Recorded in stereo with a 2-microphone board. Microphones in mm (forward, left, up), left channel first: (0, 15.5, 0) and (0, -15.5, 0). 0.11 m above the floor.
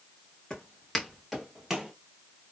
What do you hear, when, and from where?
0.5 s footsteps: 15° left (ahead or behind), 1.7 m; by 1.9 s 15° right (ahead or behind), 1.9 m